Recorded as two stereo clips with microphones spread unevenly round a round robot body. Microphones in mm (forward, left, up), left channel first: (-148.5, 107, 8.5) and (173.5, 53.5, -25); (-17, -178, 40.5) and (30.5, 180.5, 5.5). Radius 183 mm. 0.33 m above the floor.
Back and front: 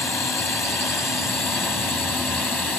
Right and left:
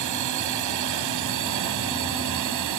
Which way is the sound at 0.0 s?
85° left.